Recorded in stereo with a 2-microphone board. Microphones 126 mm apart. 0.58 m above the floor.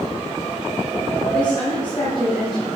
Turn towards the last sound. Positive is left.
turn(degrees=40)  # may be behind; listen again after turning